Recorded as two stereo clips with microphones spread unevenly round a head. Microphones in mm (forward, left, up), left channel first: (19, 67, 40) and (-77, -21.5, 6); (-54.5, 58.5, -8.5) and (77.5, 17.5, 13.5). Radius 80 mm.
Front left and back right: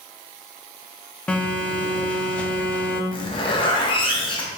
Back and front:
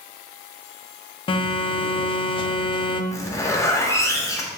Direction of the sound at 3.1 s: 90° left.